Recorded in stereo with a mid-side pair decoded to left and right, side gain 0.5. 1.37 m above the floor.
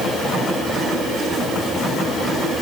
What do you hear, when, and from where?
Only background noise.